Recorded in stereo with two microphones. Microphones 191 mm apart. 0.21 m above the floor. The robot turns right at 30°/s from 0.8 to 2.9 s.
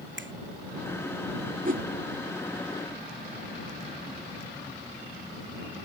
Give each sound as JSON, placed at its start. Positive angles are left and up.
{"t": 0.2, "sound": "a finger snap", "side_deg": -85}
{"t": 1.6, "sound": "a whoosh", "side_deg": -45}